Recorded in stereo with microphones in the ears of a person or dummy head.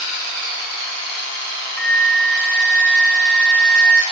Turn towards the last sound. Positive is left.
turn(degrees=10)  # may be behind; listen again after turning